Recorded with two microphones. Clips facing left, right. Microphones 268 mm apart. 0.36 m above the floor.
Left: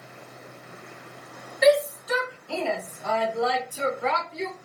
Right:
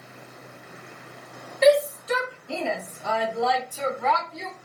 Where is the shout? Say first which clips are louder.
Right 1 dB; 35° right (ahead or behind), 1.5 m; by 4.5 s 30° left (ahead or behind), 1.1 m.